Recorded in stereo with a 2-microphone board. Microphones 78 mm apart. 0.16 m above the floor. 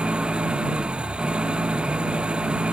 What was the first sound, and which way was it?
An engine running, 15° right (ahead or behind).